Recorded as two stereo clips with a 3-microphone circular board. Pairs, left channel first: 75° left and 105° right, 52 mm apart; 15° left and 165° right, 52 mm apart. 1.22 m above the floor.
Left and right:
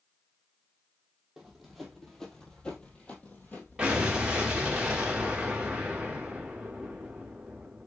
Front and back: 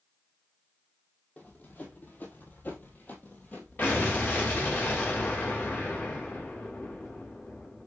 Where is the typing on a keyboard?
No typing on a keyboard in this recording.